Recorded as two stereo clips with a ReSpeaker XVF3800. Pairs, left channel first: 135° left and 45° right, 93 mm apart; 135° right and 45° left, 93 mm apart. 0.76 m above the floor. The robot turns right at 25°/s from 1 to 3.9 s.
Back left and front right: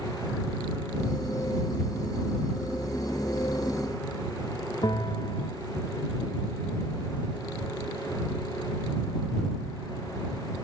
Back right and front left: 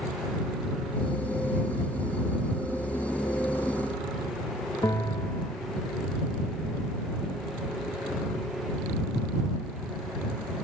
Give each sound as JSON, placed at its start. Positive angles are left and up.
{"t": 4.8, "sound": "a bell", "azimuth_deg": 175}